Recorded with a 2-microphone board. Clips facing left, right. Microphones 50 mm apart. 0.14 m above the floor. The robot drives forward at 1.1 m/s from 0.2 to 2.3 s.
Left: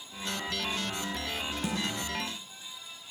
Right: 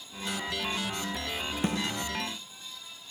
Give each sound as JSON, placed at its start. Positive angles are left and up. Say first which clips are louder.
{"t": 1.6, "sound": "a snare drum", "louder": "right 4 dB", "side_deg": -45, "distance_m": 2.0}